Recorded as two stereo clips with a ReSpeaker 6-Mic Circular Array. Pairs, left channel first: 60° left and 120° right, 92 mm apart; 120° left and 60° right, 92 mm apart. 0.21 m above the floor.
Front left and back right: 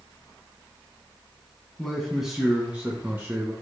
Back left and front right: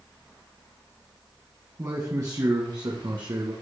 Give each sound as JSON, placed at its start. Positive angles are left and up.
{"t": 1.8, "sound": "a man speaking", "azimuth_deg": -20, "distance_m": 1.5}